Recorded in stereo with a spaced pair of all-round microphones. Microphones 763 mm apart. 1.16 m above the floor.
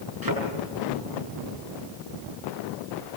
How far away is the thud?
About 8 m.